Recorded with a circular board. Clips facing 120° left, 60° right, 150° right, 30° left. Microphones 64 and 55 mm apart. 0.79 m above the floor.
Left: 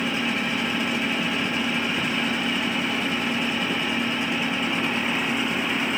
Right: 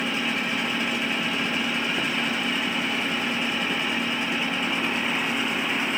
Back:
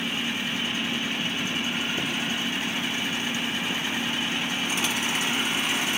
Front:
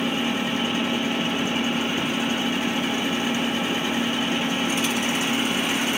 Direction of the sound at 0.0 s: 30° left.